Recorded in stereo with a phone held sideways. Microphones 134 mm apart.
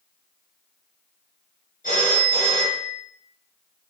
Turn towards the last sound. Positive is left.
turn(degrees=70)  # may be behind; listen again after turning